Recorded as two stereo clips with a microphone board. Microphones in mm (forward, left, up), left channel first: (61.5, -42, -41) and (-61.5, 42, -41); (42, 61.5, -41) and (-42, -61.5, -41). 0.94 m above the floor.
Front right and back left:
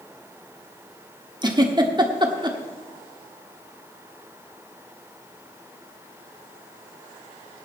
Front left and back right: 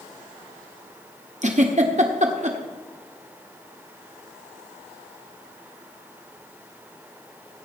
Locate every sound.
1.4 s a giggle: 155° right, 1.4 m